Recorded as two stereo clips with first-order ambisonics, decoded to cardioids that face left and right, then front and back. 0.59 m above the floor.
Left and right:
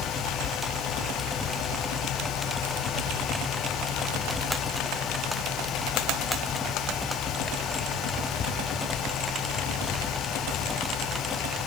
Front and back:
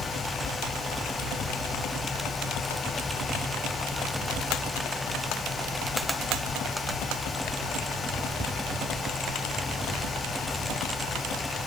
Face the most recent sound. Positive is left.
No sound to turn to.